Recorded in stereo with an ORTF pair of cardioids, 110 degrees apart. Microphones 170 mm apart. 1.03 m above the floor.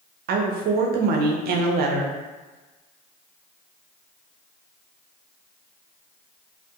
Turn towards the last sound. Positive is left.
turn(degrees=-70)